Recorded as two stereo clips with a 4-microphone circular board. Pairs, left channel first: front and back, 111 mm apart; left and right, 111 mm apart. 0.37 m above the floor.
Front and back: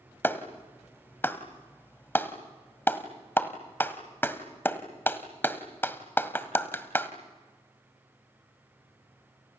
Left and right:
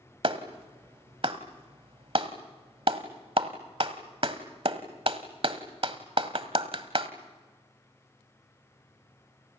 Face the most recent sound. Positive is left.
turn(degrees=-70)